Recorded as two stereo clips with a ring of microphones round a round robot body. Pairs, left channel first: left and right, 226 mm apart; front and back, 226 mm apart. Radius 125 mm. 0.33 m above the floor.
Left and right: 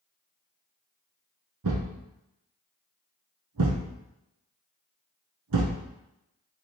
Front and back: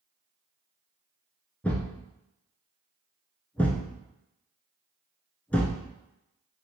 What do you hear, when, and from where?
1.6 s a thud: 85° right, 0.7 m